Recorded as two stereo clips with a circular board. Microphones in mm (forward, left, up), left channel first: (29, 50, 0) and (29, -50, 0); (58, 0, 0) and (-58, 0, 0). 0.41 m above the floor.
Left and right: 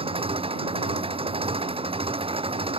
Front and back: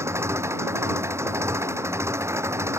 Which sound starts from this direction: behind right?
An engine running, at 0.0 s.